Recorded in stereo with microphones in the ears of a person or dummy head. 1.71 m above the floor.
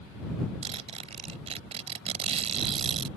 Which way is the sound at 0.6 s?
30° right (ahead or behind).